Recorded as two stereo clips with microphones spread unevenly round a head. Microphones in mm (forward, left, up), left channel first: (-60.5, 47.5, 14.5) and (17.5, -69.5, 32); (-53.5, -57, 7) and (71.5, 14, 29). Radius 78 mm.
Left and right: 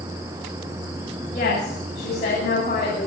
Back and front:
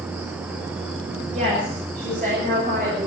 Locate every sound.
1.3 s a woman speaking: 80° left, 8 m; by 3.1 s 65° left, 7.5 m